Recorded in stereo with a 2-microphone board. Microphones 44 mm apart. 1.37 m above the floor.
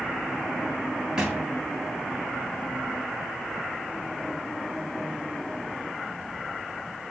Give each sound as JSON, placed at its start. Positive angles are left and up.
{"t": 1.2, "sound": "a thud", "side_deg": -15, "distance_m": 2.5}